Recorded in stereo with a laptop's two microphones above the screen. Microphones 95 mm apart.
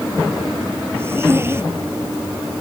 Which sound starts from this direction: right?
A zipper, at 1.0 s.